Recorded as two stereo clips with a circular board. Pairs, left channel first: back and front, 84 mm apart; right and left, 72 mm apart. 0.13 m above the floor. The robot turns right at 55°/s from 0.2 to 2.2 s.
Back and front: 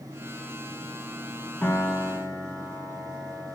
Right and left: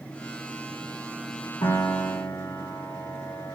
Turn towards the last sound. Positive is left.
turn(degrees=-65)